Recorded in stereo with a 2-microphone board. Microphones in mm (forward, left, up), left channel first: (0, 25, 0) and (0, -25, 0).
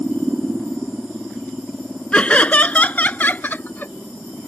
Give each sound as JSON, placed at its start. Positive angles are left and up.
{"t": 2.1, "sound": "laughter", "side_deg": 25}